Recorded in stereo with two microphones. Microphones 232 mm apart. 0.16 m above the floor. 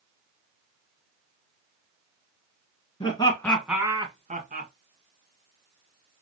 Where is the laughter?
25° left (ahead or behind), 1.5 m; by 4.7 s 45° right (ahead or behind), 1.6 m.